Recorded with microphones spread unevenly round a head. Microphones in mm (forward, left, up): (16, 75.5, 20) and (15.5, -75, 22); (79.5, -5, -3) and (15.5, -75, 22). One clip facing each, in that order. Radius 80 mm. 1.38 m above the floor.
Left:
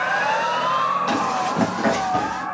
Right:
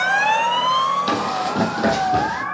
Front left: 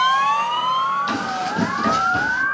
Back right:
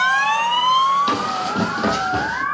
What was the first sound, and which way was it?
Running footsteps, 145° right.